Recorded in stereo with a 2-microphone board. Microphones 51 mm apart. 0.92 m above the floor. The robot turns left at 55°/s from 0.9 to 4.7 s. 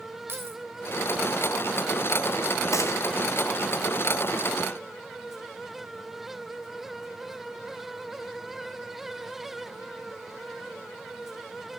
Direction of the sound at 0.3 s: 55° right (ahead or behind).